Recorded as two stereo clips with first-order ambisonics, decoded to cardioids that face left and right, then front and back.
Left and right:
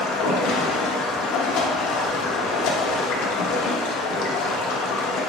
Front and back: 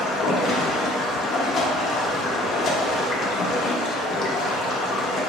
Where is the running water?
60° left, 0.8 m.